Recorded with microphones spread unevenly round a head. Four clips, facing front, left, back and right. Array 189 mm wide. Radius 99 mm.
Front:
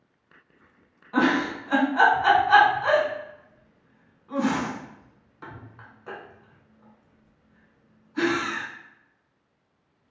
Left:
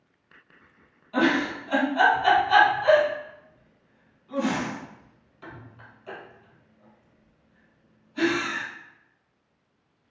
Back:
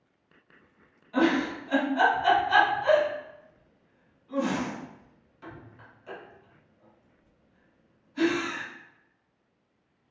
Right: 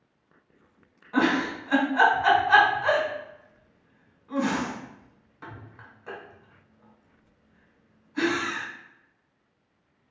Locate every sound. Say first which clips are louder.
1.1 s a giggle: left 1 dB, front 2 dB; 25° right, 1.1 m